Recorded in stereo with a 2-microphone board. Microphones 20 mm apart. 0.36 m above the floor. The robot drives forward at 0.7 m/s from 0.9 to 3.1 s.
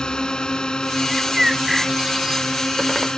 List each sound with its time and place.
0.0 s a drone: 45° left (ahead or behind)
1.1 s a bird: 25° right (ahead or behind); by 2.5 s 20° right (ahead or behind)